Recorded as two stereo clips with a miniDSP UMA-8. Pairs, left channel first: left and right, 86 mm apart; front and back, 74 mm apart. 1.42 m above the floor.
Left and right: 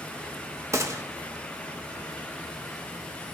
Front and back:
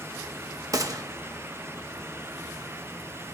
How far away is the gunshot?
About 1.4 m.